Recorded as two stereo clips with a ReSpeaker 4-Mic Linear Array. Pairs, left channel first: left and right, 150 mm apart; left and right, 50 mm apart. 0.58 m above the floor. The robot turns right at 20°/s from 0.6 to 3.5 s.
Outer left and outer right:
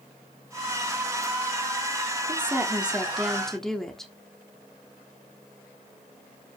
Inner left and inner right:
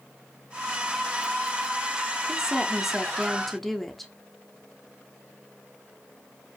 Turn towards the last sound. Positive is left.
turn(degrees=5)  # may be behind; listen again after turning